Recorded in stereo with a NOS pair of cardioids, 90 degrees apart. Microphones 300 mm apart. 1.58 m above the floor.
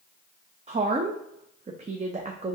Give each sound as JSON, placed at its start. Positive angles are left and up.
{"t": 0.7, "sound": "a woman speaking", "azimuth_deg": -20, "distance_m": 0.6}